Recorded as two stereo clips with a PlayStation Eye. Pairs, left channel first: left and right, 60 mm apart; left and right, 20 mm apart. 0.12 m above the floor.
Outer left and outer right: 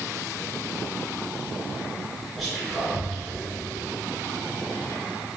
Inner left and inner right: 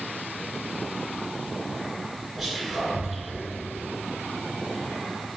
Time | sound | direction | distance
2.4 | whispering | centre (ahead or behind) | 1.3 m